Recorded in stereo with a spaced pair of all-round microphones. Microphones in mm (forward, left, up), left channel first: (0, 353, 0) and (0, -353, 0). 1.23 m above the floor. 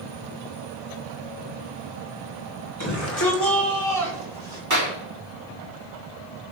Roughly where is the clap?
Right.